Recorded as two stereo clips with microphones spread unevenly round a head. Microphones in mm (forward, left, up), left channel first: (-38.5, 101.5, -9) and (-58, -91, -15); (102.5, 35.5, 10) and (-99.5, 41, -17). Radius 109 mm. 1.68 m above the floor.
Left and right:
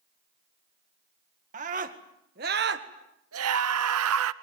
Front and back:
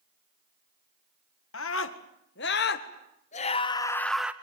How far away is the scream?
About 2 m.